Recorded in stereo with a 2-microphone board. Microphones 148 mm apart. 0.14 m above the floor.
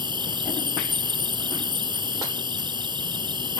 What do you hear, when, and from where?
0.0 s an insect: 35° right (ahead or behind)